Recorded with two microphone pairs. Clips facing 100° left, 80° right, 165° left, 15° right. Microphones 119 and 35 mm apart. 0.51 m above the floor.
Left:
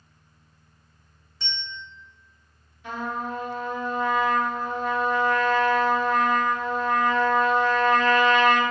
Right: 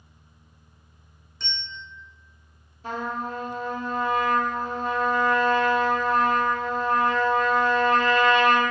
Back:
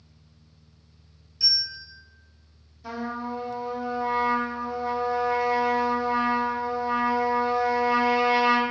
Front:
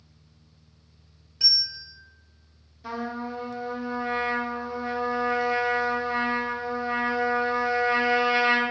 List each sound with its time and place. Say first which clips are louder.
1.4 s a bell: left 1 dB, front 1 dB; 15° left, 1.0 m
2.8 s a trumpet: even, even; 70° right, 0.7 m